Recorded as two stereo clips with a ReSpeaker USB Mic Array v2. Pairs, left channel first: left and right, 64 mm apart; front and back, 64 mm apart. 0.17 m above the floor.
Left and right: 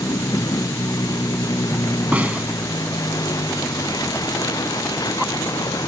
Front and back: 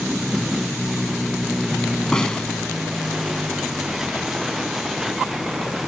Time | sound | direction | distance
0.0 | a vehicle | 95° left | ?
2.1 | a snare drum | 60° right | ?